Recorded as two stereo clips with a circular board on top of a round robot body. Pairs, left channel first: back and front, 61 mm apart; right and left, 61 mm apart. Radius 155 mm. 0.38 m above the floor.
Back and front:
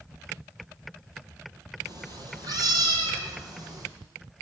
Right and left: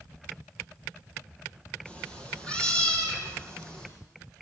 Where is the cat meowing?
15° right, 3.5 m.